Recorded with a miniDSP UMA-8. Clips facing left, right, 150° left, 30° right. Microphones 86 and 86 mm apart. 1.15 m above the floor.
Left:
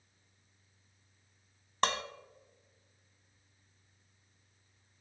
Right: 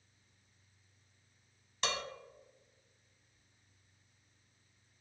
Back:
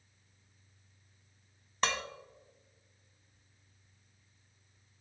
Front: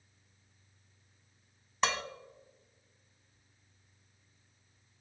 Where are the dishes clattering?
60° left, 0.9 m.